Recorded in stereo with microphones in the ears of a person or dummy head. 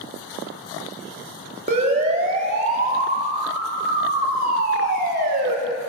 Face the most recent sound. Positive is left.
turn(degrees=-50)  # may be behind; listen again after turning